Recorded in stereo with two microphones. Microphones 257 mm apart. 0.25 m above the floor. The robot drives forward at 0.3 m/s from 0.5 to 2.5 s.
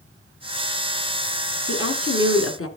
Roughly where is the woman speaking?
Left.